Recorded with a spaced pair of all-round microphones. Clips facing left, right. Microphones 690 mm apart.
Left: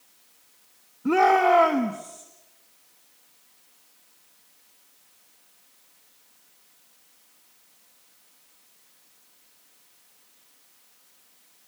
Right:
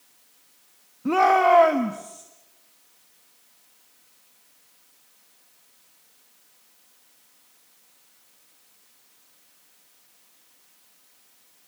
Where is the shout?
5° right (ahead or behind), 0.9 m; by 2.2 s 10° right (ahead or behind), 1.6 m.